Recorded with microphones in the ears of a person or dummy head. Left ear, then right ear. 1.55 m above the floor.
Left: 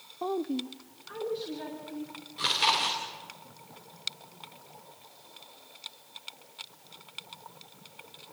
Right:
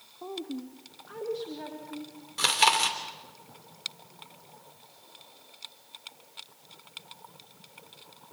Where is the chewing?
40° right (ahead or behind), 2.5 m.